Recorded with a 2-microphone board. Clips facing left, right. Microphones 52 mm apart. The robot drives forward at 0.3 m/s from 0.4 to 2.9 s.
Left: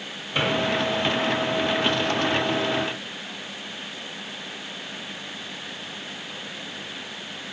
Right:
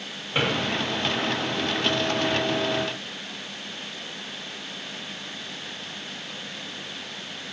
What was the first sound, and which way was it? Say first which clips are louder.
A drawer: even; 30° right (ahead or behind).